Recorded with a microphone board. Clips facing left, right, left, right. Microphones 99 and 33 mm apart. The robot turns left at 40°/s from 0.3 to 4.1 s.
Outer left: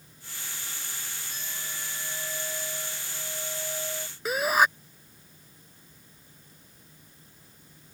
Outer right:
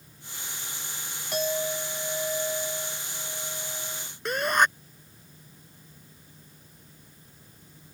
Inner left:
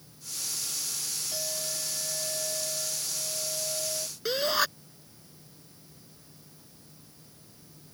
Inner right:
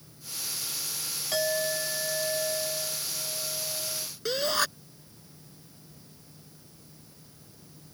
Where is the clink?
105° right; by 4.1 s 145° left.